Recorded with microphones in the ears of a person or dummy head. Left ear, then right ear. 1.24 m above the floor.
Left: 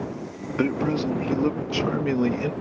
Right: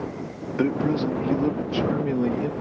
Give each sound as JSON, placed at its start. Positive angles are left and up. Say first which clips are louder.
{"t": 0.6, "sound": "a man speaking", "louder": "right 1 dB", "side_deg": 15}